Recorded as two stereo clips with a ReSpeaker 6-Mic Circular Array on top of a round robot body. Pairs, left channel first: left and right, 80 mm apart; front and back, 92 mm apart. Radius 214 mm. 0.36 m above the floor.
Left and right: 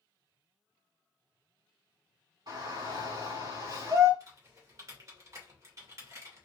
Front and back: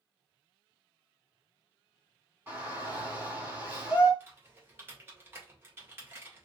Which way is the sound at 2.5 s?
110° right.